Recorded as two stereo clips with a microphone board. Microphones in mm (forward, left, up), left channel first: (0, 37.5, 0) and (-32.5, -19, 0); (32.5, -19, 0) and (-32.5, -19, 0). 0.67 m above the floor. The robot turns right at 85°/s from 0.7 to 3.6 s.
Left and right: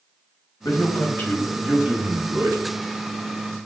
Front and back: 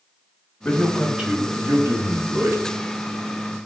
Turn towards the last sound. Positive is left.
turn(degrees=-45)